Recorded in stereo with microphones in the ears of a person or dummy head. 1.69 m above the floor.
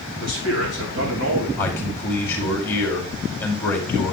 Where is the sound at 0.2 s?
65° right (ahead or behind), 3 m.